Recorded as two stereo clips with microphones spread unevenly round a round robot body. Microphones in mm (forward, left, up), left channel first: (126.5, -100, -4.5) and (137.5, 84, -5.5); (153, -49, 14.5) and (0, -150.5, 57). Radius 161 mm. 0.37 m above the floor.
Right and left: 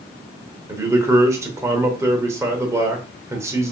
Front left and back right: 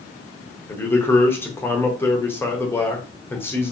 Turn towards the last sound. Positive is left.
turn(degrees=35)